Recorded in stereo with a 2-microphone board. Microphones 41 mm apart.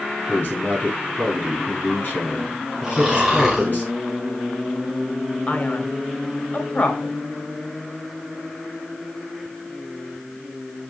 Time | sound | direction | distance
0.3 | a man speaking | 50° left (ahead or behind) | 5 m
2.8 | snoring | centre (ahead or behind) | 4.5 m
5.5 | a man speaking | 40° left (ahead or behind) | 2.0 m